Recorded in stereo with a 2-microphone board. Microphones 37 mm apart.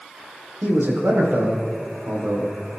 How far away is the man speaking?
About 5.5 m.